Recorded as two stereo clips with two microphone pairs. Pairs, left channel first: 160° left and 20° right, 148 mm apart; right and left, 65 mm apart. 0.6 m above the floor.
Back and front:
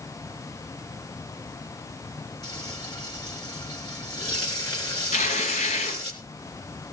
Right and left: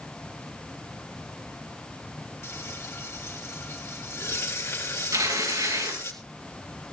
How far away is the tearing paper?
About 5 m.